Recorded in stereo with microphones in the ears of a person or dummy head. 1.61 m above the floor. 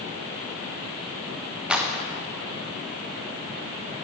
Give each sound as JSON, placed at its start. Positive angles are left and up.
{"t": 1.7, "sound": "a clap", "side_deg": 0, "distance_m": 1.5}